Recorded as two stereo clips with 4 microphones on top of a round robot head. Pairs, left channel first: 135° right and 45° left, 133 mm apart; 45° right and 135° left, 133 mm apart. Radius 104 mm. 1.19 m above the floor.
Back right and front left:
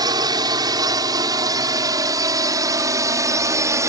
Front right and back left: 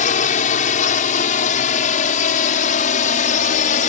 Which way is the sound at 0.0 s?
15° right.